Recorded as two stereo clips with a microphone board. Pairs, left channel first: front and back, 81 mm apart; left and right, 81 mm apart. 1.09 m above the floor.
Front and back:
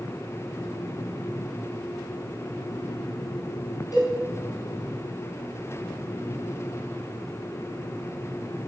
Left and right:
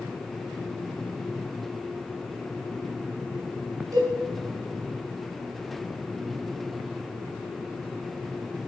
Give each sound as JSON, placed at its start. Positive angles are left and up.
{"t": 3.9, "sound": "a cowbell", "azimuth_deg": -40, "distance_m": 4.5}